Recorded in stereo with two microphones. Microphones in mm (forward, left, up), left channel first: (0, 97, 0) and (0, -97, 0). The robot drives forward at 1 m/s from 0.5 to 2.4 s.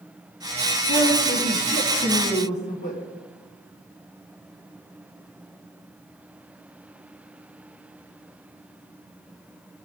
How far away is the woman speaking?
About 4 m.